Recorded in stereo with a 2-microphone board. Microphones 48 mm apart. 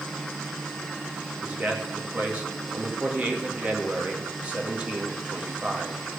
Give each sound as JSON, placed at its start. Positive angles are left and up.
{"t": 1.4, "sound": "a man speaking", "side_deg": -30, "distance_m": 2.0}